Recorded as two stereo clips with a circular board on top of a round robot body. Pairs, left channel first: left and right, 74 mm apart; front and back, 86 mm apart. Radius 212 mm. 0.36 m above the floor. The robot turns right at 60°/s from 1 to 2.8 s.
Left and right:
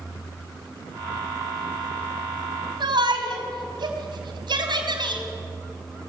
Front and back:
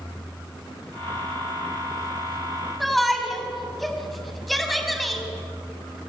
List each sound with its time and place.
2.8 s a shout: 90° right, 4.5 m